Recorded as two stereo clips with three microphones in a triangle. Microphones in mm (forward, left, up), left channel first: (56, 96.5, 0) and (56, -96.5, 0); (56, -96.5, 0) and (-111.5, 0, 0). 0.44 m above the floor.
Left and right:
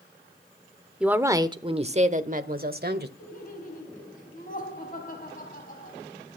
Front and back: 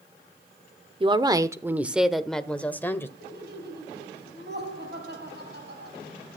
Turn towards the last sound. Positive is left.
turn(degrees=130)